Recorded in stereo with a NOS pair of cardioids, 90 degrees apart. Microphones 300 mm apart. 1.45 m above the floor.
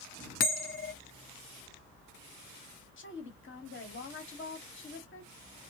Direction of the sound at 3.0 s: 45° left.